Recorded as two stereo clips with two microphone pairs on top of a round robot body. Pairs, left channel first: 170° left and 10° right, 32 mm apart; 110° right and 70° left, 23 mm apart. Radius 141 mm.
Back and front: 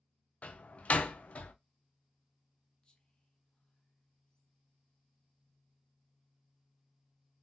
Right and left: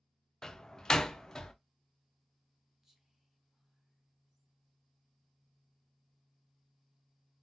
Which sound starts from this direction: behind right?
A door slam, at 0.4 s.